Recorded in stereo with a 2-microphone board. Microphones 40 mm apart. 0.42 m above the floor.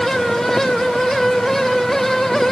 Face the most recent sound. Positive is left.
No sound to turn to.